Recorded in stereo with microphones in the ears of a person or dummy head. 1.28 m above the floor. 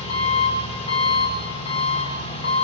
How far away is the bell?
No bell in this recording.